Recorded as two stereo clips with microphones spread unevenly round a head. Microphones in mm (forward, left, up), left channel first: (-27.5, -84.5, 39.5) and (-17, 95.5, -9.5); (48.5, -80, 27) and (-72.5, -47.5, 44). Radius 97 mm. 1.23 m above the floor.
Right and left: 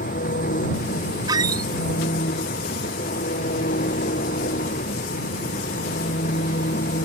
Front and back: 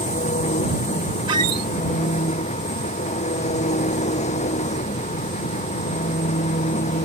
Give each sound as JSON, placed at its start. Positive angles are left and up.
{"t": 0.0, "sound": "an engine running", "azimuth_deg": -45}
{"t": 1.3, "sound": "a squeak", "azimuth_deg": 165}